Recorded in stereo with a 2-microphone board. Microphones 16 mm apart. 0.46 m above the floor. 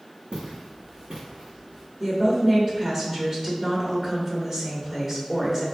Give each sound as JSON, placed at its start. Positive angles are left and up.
{"t": 0.3, "sound": "footsteps", "side_deg": -65, "distance_m": 1.8}
{"t": 2.0, "sound": "a woman speaking", "side_deg": -25, "distance_m": 1.5}